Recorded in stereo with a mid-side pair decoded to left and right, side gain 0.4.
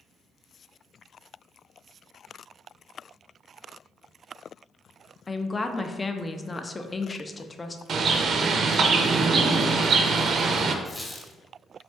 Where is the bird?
60° right, 0.5 m.